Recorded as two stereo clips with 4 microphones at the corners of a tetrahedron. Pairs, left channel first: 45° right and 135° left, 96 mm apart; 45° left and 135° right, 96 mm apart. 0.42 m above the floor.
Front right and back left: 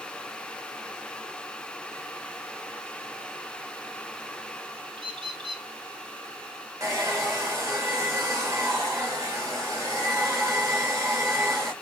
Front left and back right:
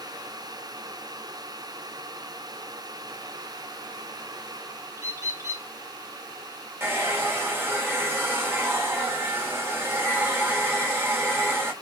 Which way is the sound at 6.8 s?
170° left.